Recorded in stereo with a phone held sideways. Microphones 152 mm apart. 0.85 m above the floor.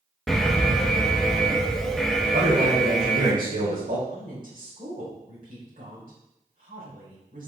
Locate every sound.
0.3 s an alarm: centre (ahead or behind), 1.2 m
2.3 s a man speaking: 55° right (ahead or behind), 3 m
4.1 s a woman speaking: 65° right (ahead or behind), 3 m